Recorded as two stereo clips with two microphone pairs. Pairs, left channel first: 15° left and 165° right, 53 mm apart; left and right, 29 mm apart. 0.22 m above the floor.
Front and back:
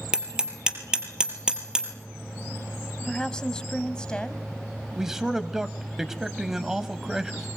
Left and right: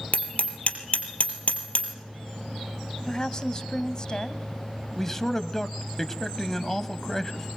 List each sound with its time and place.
0.1 s hammering: 125° left, 3 m
3.1 s a woman speaking: 75° left, 1.1 m
5.0 s a man speaking: 135° left, 1.0 m